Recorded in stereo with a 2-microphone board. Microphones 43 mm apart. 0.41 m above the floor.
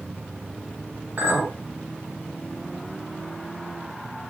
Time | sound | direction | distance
1.2 | a clink | 50° right (ahead or behind) | 1.5 m